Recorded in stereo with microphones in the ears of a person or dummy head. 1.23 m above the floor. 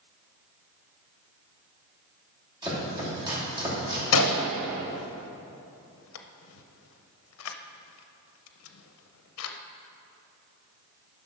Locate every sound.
2.6 s chopping: 25° right (ahead or behind), 2.5 m
4.1 s a gunshot: 80° left, 0.6 m